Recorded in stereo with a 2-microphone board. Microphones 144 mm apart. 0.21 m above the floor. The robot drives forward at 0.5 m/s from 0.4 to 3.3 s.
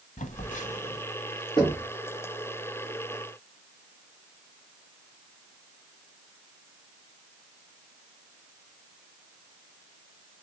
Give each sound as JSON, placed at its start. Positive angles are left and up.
{"t": 0.2, "sound": "a phone buzzing", "side_deg": 55, "distance_m": 0.9}
{"t": 1.6, "sound": "knocking", "side_deg": 30, "distance_m": 2.5}